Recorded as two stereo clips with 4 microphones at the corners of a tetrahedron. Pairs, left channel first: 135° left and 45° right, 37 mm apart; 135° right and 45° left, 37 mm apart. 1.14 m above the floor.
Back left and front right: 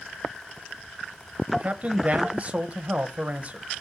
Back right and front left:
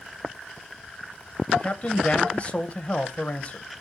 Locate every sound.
1.5 s a man speaking: 90° right, 1.1 m